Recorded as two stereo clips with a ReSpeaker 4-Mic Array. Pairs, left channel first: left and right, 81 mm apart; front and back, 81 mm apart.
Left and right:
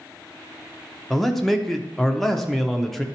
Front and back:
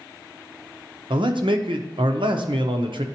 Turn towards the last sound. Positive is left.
turn(degrees=175)